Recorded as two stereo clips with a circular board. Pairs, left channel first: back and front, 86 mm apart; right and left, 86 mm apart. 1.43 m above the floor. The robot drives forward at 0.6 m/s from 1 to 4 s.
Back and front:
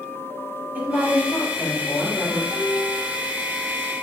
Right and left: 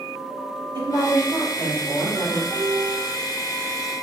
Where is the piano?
70° left, 2 m; by 3.0 s 75° left, 2 m.